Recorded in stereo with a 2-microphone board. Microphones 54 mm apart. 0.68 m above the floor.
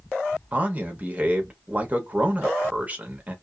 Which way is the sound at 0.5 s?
25° right (ahead or behind).